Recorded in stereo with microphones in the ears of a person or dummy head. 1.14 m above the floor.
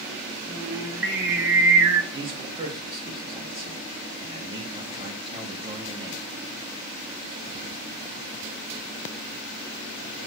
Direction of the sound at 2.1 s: 25° right (ahead or behind).